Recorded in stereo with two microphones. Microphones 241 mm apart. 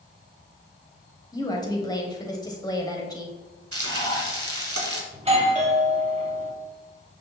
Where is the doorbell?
25° right (ahead or behind), 1.6 m.